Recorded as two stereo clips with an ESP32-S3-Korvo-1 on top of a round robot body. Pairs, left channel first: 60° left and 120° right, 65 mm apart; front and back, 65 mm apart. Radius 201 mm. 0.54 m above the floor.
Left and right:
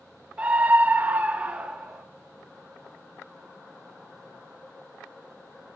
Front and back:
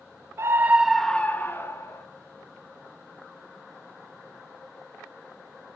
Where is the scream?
Straight behind, 0.7 m; by 2.0 s 40° right, 1.1 m.